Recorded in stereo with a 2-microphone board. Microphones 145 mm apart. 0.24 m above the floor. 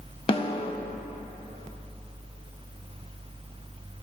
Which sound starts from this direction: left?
A snare drum, at 0.3 s.